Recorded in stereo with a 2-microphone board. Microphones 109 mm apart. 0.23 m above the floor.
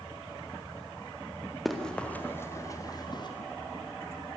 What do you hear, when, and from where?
1.6 s running footsteps: centre (ahead or behind), 2.5 m; by 3.3 s 45° left (ahead or behind), 3 m